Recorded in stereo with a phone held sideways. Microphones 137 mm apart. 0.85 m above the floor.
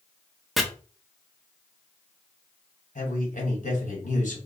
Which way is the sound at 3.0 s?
75° left (ahead or behind).